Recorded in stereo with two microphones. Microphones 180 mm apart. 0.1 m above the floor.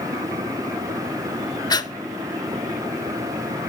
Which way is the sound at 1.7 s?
20° left (ahead or behind).